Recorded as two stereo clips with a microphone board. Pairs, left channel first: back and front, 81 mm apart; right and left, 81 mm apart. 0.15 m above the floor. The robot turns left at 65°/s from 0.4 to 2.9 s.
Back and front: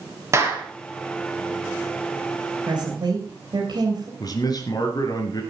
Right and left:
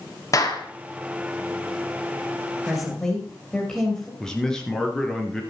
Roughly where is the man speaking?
Behind.